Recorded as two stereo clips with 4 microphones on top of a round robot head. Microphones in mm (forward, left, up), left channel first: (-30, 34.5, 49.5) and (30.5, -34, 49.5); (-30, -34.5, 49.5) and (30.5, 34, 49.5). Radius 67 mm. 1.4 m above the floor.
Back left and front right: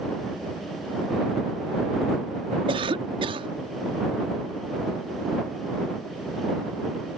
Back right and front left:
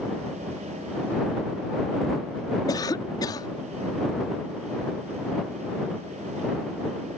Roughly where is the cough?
Right.